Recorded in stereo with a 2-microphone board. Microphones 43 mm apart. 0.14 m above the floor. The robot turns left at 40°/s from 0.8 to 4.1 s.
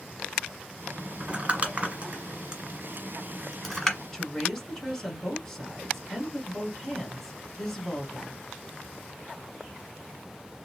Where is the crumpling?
30° right (ahead or behind), 1.7 m; by 4.0 s 10° left (ahead or behind), 1.7 m.